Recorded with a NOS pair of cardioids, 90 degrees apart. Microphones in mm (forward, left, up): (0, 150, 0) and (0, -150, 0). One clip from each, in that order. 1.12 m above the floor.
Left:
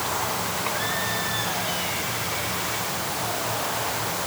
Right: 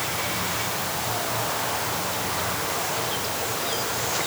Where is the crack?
No crack in this recording.